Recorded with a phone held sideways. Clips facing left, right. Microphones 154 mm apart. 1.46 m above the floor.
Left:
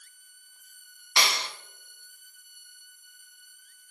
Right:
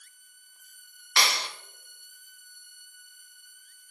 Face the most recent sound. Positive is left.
turn(degrees=20)  # may be behind; listen again after turning